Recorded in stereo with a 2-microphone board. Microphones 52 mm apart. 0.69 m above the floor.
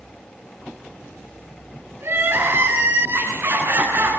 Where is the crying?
50° right (ahead or behind), 8.5 m.